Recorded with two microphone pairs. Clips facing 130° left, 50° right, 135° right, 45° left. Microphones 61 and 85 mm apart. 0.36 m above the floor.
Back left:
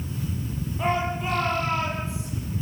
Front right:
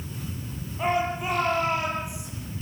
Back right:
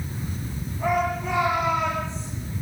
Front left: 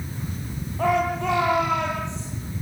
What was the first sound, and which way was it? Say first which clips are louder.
A shout: front right 1 dB, front left 2 dB; 40° left.